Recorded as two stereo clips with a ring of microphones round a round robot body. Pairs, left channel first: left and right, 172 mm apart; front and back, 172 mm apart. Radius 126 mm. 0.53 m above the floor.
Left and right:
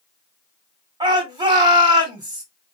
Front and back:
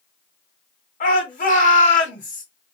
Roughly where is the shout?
Ahead right.